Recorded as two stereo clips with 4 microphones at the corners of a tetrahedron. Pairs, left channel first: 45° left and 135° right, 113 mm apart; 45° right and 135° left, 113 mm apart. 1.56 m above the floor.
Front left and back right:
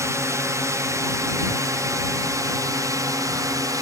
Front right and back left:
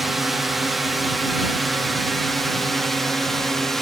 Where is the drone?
140° right; by 3.8 s 130° right.